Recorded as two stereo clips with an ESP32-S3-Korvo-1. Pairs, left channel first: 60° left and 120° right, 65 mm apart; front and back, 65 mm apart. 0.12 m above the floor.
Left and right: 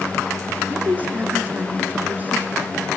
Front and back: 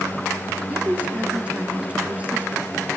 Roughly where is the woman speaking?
Behind right.